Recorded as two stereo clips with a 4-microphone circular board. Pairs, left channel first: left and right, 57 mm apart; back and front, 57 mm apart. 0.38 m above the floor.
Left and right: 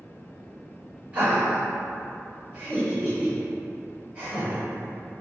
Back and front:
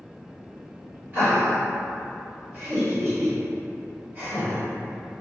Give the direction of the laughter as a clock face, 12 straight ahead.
1 o'clock.